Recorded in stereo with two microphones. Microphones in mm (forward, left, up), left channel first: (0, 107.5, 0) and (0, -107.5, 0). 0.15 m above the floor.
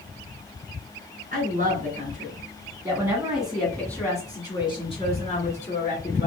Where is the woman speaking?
40° right (ahead or behind), 1.7 m; by 6.3 s 40° left (ahead or behind), 2 m.